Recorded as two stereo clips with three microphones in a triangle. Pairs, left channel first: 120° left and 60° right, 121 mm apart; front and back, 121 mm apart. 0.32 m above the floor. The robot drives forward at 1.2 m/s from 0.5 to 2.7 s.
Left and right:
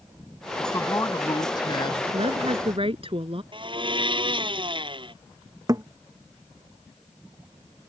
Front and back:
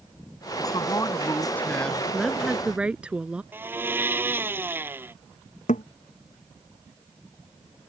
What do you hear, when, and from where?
0.6 s a man speaking: 50° left; by 2.0 s 85° left
2.1 s a woman speaking: 90° right; by 3.4 s 100° right
3.5 s a blender: 105° right
5.7 s a thud: straight ahead